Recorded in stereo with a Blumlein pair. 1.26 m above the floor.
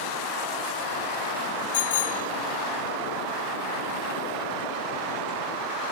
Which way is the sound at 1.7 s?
60° left.